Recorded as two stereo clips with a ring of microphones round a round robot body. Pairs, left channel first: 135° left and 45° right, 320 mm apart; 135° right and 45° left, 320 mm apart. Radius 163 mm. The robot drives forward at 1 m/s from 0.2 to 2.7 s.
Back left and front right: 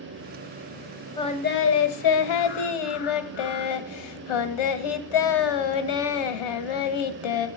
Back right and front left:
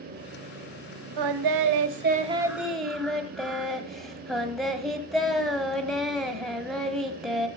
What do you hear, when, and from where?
1.2 s singing: 55° left, 1.1 m; by 7.5 s 135° left, 1.3 m